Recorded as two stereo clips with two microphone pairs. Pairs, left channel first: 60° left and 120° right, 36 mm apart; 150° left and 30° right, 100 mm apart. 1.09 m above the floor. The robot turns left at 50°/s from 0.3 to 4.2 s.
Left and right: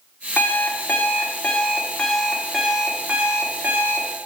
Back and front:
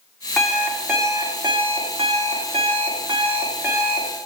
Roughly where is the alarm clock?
Ahead left.